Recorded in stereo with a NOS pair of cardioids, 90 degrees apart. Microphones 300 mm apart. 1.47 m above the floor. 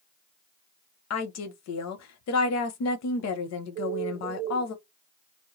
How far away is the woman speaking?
About 0.8 m.